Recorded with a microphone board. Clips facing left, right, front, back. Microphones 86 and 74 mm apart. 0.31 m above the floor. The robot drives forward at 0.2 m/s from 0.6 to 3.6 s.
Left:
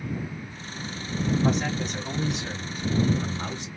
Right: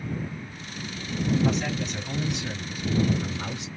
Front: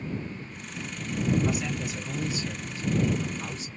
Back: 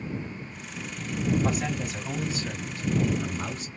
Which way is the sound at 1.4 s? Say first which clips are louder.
Left 1 dB, back 1 dB; 135° left.